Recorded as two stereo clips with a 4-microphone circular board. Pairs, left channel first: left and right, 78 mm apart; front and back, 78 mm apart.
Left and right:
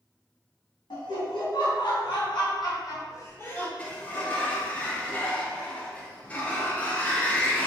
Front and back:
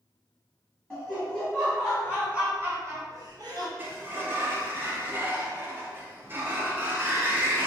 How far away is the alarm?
No alarm in this recording.